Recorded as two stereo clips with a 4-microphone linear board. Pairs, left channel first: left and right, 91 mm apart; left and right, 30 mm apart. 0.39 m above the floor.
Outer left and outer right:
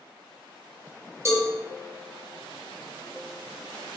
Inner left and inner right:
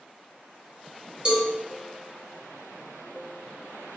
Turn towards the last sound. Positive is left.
turn(degrees=-30)  # may be behind; listen again after turning